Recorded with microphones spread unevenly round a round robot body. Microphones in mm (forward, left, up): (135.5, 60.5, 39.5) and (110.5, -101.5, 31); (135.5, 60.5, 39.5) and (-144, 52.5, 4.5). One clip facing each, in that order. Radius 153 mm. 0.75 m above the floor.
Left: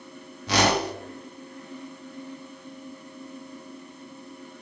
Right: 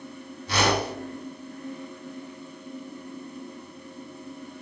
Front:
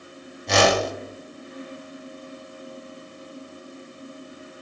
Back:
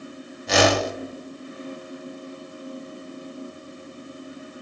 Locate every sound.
0.5 s a whoosh: 95° left, 0.7 m